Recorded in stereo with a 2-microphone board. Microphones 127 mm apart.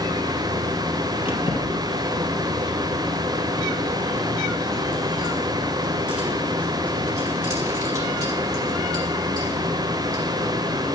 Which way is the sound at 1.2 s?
45° left (ahead or behind).